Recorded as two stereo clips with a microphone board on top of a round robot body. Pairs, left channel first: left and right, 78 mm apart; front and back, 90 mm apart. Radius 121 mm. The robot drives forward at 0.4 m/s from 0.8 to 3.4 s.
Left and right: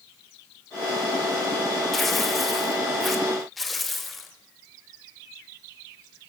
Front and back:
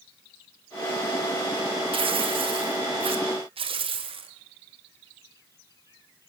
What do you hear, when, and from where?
1.9 s tearing paper: straight behind, 1.6 m